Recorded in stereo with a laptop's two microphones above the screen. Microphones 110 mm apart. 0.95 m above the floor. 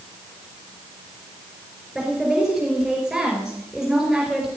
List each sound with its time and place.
1.9 s a woman speaking: centre (ahead or behind), 4.5 m